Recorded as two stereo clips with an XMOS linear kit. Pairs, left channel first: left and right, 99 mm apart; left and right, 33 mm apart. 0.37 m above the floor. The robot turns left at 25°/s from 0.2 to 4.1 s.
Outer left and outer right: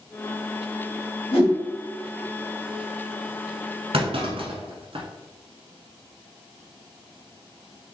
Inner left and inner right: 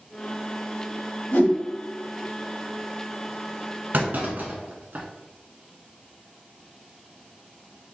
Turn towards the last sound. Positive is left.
turn(degrees=-65)  # may be behind; listen again after turning